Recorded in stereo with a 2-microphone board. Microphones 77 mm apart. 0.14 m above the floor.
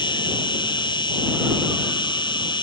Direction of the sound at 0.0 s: 80° left.